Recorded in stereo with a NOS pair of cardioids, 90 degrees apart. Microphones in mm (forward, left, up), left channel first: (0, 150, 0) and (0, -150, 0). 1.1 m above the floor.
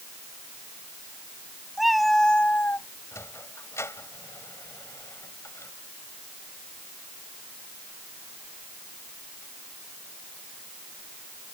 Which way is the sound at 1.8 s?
Straight ahead.